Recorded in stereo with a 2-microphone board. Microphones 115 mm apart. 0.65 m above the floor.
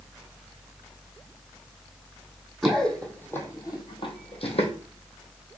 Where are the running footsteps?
Centre (ahead or behind), 1.5 m; by 4.7 s 65° left (ahead or behind), 1.4 m.